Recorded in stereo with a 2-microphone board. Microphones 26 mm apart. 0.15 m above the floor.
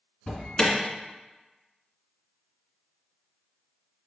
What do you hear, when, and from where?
0.3 s an alarm: 25° left (ahead or behind), 2.5 m